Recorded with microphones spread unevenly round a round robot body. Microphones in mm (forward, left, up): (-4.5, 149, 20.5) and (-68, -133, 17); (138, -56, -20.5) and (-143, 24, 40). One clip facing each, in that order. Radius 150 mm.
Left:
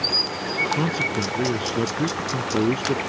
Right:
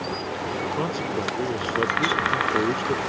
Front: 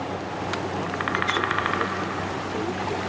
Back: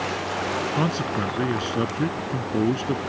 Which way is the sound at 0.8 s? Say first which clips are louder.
Left 3 dB, back 4 dB; 130° left.